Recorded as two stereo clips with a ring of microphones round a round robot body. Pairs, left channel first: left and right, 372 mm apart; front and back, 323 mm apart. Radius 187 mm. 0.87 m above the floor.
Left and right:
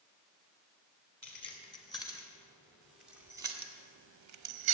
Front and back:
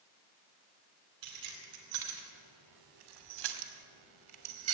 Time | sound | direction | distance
1.2 | keys jangling | 165° left | 2.5 m